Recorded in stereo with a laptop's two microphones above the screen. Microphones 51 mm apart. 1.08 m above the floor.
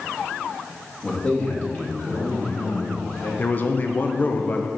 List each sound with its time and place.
1.0 s a man speaking: 20° left (ahead or behind), 1.7 m; by 3.3 s 60° left (ahead or behind), 3.5 m
3.4 s a man speaking: 35° left (ahead or behind), 0.6 m